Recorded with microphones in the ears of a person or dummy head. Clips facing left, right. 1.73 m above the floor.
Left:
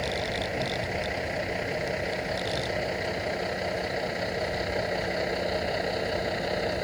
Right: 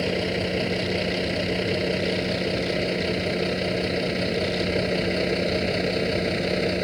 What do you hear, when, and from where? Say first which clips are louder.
0.0 s a vehicle: right 6 dB; 55° right (ahead or behind); by 6.8 s 40° right (ahead or behind)